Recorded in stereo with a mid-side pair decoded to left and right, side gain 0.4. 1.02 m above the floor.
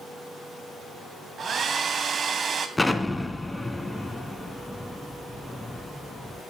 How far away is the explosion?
About 2.5 m.